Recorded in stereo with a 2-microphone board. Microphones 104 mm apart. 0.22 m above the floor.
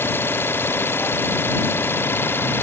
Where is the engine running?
20° left (ahead or behind).